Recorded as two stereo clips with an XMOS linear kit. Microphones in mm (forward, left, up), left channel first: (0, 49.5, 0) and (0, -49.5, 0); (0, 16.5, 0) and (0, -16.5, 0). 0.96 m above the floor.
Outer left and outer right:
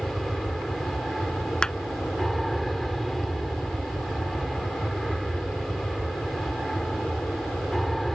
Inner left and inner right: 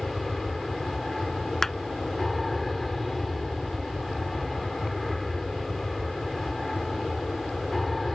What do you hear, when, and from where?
0.0 s an aircraft: centre (ahead or behind)
1.6 s a clap: 10° left (ahead or behind)